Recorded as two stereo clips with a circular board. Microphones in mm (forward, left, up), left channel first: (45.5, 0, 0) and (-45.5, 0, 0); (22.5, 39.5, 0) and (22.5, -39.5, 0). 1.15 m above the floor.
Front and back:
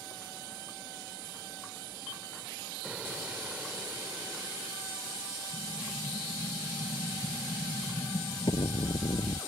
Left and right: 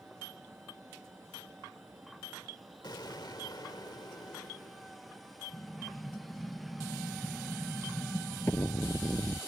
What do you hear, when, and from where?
2.8 s an explosion: 105° left
5.5 s an explosion: 25° left